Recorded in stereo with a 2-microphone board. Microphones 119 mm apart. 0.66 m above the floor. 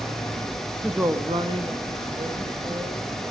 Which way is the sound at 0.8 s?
5° right (ahead or behind).